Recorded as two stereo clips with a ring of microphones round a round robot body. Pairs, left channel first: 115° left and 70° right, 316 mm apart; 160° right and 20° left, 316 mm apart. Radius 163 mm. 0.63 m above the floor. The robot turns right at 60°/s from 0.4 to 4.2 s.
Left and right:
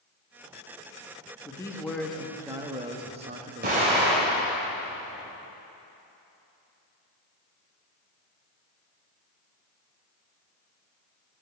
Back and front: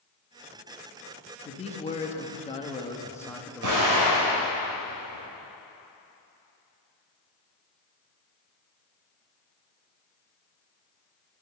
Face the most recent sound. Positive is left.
turn(degrees=25)